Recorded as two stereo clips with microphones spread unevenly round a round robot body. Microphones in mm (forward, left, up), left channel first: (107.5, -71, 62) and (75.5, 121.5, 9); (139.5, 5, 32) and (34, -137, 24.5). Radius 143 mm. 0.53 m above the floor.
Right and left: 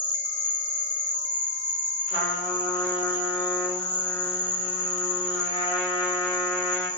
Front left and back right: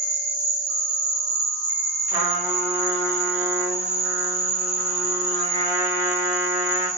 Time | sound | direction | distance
0.0 | an insect | 95° right | 1.6 m
2.1 | a trumpet | 110° right | 1.3 m